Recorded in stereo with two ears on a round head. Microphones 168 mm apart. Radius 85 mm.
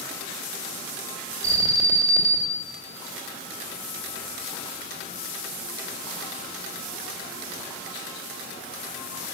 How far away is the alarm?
About 1.8 m.